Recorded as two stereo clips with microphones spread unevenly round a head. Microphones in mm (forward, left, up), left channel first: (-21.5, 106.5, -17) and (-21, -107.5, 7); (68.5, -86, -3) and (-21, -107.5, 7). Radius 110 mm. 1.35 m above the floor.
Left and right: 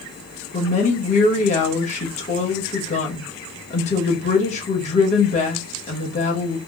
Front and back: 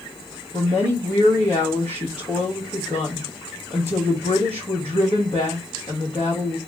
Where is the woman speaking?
150° left, 1.4 m.